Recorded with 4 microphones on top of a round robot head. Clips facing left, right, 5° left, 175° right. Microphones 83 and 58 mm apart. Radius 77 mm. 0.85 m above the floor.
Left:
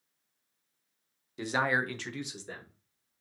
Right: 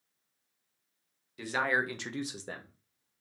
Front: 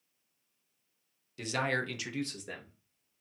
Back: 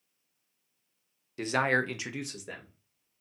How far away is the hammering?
I don't hear hammering.